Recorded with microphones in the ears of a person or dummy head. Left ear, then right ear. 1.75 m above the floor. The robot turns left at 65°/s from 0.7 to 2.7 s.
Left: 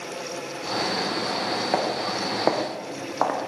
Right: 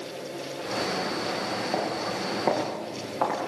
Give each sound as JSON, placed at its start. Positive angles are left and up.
{"t": 1.7, "sound": "footsteps", "side_deg": 50, "distance_m": 7.0}